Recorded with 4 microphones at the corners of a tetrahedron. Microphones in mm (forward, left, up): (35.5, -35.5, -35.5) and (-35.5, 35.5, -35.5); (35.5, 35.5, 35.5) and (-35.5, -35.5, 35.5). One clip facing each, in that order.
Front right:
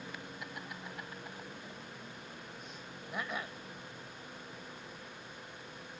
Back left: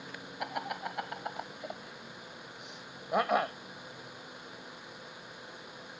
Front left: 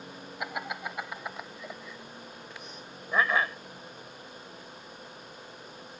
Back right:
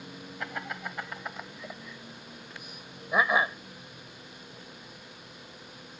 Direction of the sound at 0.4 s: 120° left.